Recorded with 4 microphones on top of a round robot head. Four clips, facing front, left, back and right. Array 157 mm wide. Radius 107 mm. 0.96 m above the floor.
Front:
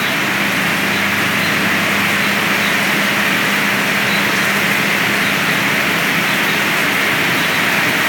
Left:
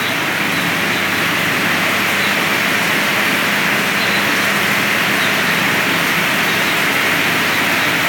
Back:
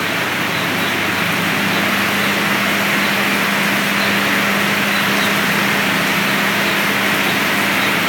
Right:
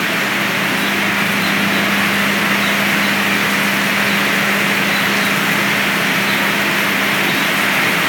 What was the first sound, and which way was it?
Only background noise.